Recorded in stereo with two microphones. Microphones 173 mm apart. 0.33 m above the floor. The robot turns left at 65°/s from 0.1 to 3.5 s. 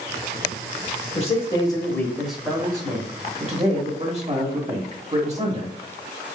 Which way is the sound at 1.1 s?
70° left.